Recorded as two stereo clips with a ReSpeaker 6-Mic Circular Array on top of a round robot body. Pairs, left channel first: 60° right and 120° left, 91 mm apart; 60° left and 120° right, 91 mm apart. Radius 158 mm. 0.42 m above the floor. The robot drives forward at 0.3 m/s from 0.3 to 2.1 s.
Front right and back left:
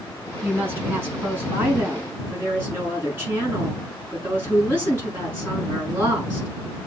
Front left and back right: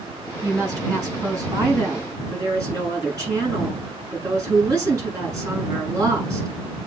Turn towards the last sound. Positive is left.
turn(degrees=-175)